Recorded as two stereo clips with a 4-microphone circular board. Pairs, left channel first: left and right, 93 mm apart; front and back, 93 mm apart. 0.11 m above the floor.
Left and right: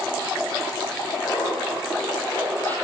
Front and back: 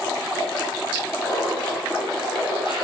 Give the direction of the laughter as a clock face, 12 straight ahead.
11 o'clock.